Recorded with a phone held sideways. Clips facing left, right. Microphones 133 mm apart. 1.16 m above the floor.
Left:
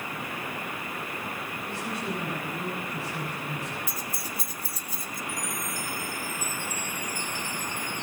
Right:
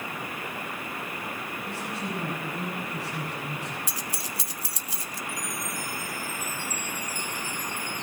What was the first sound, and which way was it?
A man speaking, 90° right.